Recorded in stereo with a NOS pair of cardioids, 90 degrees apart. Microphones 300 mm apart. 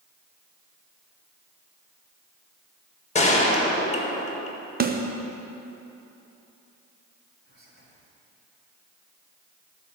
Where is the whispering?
35° right, 3 m.